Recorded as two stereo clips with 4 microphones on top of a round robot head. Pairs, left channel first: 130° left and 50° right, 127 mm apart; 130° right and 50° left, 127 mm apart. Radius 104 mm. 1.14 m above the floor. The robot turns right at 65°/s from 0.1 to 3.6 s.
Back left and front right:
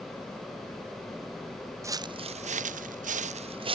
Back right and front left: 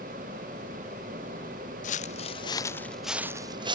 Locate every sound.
1.8 s footsteps: 115° right; by 3.8 s 5° right